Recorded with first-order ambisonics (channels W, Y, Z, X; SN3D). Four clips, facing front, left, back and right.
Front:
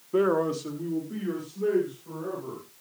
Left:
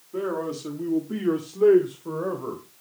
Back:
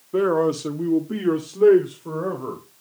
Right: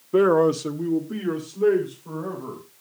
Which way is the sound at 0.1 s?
95° right.